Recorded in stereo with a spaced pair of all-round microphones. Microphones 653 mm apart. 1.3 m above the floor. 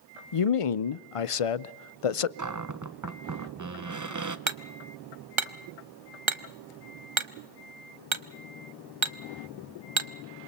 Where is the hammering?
50° right (ahead or behind), 0.8 m.